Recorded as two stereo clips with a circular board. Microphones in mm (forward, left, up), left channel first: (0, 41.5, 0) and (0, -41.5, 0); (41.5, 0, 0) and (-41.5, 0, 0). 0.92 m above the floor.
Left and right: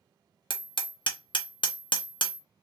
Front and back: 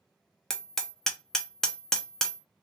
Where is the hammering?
85° left, 0.5 m.